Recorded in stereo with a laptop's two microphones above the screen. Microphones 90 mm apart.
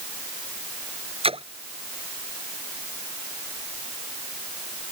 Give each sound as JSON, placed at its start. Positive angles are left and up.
{"t": 1.2, "sound": "a splash", "side_deg": -85}